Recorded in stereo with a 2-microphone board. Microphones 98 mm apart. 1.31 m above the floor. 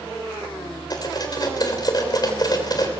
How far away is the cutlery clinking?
About 3.5 m.